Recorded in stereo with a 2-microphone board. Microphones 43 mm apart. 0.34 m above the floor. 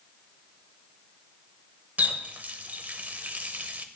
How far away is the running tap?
About 0.8 m.